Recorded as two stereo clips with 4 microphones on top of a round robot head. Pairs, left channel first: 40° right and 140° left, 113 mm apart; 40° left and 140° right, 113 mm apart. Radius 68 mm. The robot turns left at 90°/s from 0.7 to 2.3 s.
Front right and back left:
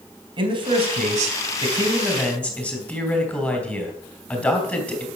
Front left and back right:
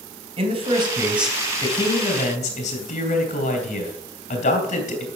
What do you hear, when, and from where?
0.4 s a man speaking: straight behind, 3.5 m; by 5.1 s 40° left, 3.5 m